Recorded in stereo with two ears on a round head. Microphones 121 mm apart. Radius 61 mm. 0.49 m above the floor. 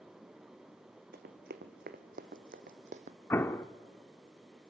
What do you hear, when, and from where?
1.1 s running footsteps: 70° right (ahead or behind), 1.7 m; by 3.2 s 60° right (ahead or behind), 1.0 m
3.3 s an explosion: 15° left (ahead or behind), 0.6 m